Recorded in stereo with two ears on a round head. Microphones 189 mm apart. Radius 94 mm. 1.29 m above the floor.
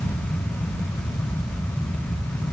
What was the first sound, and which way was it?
Only background noise.